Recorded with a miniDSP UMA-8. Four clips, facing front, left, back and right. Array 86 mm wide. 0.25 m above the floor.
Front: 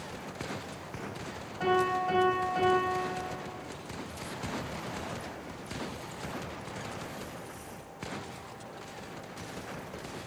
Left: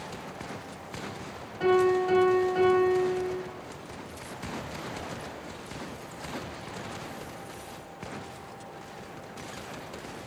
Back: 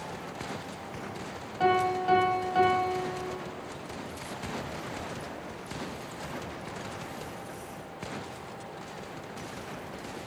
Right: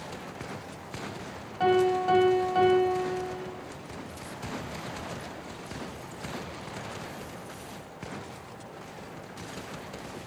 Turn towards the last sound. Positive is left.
turn(degrees=-130)